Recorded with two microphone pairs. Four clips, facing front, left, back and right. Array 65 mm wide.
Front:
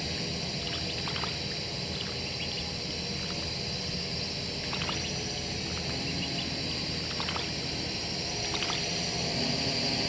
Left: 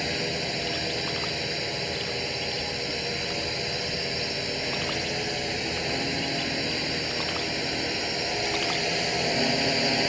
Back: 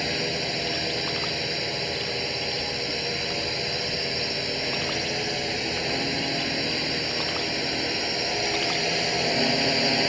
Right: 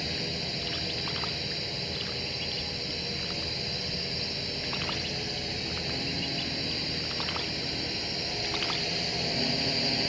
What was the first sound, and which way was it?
A drone, 140° left.